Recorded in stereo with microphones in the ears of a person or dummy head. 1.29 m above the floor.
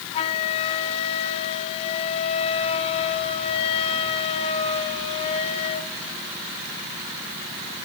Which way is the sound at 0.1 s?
30° left (ahead or behind).